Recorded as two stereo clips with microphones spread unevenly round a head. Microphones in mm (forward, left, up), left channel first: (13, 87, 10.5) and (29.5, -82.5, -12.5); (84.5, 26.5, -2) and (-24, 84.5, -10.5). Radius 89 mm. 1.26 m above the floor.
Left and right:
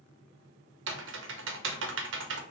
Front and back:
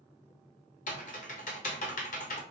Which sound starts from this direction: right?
Typing on a keyboard, at 0.9 s.